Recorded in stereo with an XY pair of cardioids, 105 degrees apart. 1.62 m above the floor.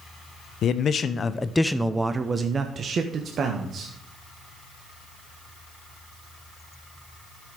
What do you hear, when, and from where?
0.6 s a man speaking: 65° left, 0.9 m; by 3.9 s 60° right, 1.7 m